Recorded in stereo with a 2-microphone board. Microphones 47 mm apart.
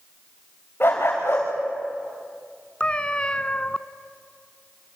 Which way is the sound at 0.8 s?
50° left (ahead or behind).